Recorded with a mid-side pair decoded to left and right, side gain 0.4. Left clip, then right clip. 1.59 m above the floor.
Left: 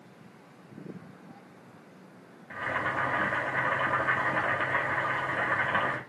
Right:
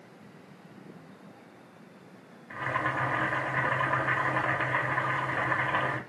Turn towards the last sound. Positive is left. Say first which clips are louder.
# even
turn(degrees=-5)